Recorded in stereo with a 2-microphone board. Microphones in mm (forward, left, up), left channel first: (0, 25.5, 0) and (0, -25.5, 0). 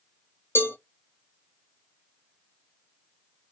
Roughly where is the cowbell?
Left.